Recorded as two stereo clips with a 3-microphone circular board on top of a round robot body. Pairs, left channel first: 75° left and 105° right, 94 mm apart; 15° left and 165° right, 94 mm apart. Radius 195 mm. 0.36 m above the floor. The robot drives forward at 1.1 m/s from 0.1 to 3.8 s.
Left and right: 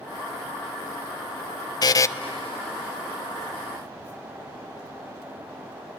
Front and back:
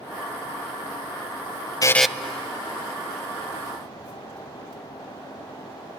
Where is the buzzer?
50° left, 0.5 m; by 2.1 s 115° left, 0.5 m.